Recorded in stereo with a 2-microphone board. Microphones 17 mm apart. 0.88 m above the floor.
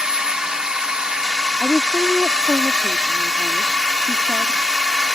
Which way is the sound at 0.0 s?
45° right (ahead or behind).